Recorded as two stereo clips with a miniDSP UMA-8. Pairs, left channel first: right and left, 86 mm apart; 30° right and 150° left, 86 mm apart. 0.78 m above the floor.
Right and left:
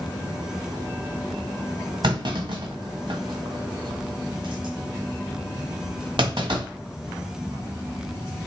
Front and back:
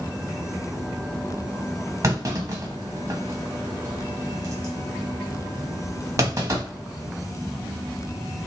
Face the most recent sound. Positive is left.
turn(degrees=100)